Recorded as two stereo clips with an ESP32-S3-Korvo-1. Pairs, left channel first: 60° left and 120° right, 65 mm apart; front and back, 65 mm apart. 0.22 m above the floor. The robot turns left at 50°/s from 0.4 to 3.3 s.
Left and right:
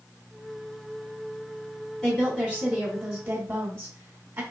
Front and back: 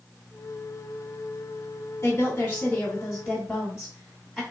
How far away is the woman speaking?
About 2 m.